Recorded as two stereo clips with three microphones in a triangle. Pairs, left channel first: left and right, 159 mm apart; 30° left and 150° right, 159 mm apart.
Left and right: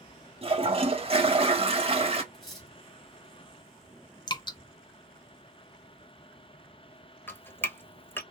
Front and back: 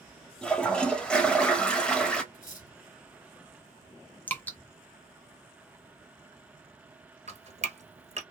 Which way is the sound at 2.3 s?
Straight ahead.